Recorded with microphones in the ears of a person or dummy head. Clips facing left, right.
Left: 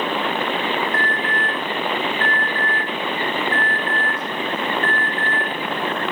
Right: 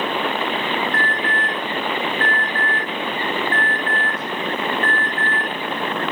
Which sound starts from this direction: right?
An alarm, at 0.9 s.